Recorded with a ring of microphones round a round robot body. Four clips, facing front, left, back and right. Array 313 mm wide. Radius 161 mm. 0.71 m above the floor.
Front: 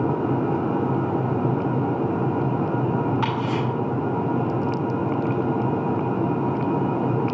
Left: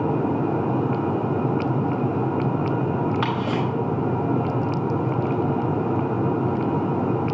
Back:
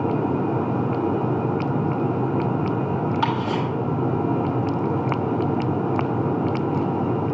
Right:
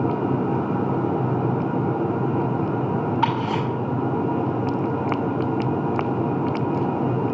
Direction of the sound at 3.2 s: 95° left.